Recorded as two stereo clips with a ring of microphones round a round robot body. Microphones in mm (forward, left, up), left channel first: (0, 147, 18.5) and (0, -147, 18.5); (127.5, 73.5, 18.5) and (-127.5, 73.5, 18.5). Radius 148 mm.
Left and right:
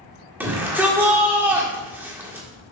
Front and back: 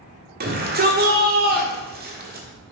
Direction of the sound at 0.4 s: 170° right.